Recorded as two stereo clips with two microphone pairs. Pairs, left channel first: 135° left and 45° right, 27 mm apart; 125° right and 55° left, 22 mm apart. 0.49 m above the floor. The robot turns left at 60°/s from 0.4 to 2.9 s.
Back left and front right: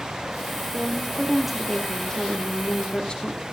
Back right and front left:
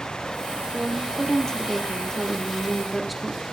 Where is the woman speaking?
85° right, 1.1 m; by 3.4 s 145° left, 1.1 m.